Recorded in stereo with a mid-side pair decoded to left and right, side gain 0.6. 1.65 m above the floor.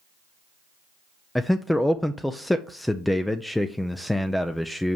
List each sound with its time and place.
1.4 s a man speaking: 5° left, 0.5 m